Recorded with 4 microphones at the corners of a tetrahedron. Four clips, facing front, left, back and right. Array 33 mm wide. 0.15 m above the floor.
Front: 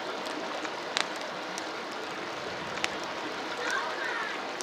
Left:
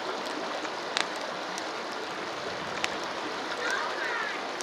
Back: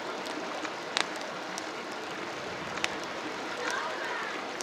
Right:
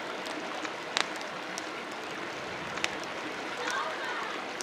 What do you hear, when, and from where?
0.0 s running water: 70° left, 1.3 m
3.6 s laughter: 70° left, 2.5 m